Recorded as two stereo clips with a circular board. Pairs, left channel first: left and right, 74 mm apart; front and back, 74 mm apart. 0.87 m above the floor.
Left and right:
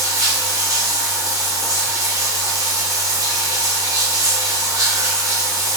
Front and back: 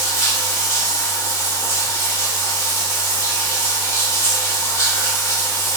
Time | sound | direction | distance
0.0 | running water | 55° right | 0.7 m